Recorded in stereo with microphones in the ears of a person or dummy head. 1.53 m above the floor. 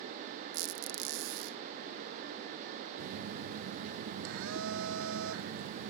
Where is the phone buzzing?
80° right.